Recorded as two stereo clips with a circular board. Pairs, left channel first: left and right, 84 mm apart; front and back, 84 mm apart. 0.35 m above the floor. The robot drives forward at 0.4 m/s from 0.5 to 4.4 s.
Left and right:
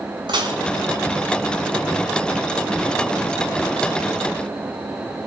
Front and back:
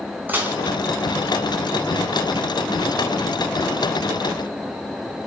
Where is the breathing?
No breathing in this recording.